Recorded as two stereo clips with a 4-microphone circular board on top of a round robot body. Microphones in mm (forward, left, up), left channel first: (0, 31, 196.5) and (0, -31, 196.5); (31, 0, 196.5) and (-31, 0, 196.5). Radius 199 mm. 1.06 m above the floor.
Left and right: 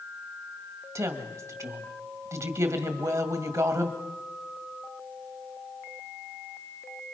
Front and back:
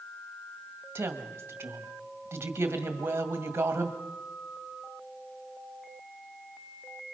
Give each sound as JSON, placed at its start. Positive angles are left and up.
{"t": 0.9, "sound": "a woman speaking", "azimuth_deg": -125, "distance_m": 1.8}